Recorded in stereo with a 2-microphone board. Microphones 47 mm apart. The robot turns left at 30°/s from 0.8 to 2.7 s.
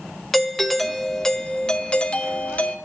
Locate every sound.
0.3 s a doorbell: 175° left, 0.6 m; by 2.8 s 120° left, 0.6 m